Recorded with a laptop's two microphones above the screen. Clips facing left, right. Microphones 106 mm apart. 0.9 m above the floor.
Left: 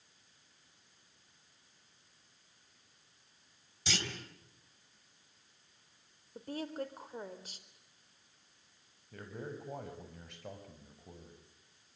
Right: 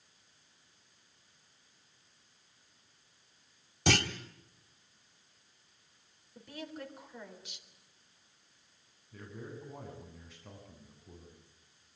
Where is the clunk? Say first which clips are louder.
Right 10 dB; 60° right (ahead or behind), 1.5 m.